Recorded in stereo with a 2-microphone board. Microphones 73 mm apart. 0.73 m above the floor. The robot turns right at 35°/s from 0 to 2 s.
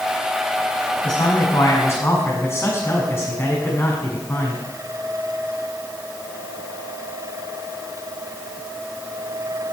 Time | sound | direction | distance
1.0 | a man speaking | 110° left | 6.5 m